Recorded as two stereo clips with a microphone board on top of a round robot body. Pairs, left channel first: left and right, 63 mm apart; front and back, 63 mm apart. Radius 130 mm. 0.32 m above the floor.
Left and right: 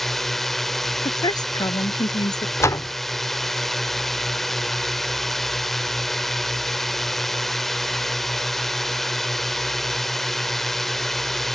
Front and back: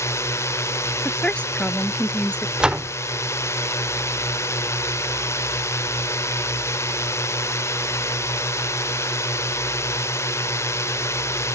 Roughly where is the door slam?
Left.